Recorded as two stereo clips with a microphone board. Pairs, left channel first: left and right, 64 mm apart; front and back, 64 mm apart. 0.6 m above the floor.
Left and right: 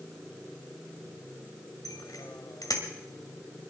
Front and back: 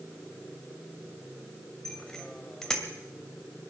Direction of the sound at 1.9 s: 80° left.